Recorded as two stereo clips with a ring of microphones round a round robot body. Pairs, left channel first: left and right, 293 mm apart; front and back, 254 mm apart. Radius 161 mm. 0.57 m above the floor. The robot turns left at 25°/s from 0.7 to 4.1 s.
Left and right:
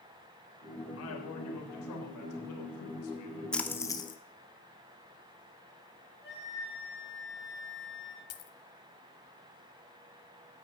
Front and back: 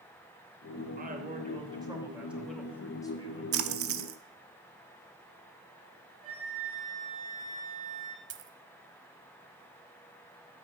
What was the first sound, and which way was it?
A man speaking, 130° left.